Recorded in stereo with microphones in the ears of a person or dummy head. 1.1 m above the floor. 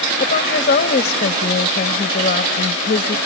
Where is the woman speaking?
45° left (ahead or behind).